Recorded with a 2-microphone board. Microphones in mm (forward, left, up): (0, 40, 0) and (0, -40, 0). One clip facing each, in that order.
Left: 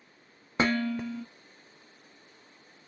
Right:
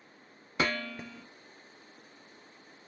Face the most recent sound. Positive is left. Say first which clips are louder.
# left 5 dB
turn(degrees=25)  # may be behind; listen again after turning